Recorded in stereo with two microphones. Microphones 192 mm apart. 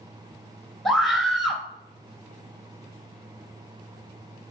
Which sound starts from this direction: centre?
A scream, at 0.8 s.